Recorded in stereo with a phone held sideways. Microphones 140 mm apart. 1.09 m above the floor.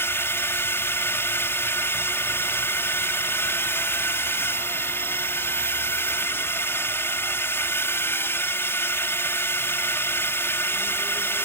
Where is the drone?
15° left (ahead or behind).